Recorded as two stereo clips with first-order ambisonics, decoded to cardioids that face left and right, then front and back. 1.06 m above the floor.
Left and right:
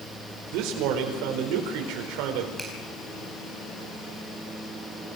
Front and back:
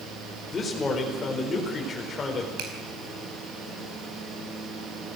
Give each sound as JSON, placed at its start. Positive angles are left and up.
{"t": 0.5, "sound": "a man speaking", "azimuth_deg": -70, "distance_m": 4.5}
{"t": 2.6, "sound": "a finger snap", "azimuth_deg": -175, "distance_m": 5.0}